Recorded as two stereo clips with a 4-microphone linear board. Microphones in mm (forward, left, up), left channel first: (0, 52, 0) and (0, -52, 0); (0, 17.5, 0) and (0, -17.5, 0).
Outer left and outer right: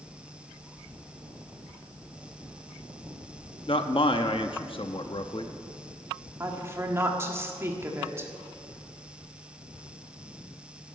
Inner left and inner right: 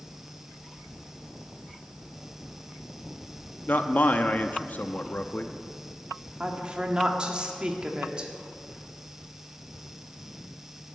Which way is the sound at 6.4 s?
25° right (ahead or behind).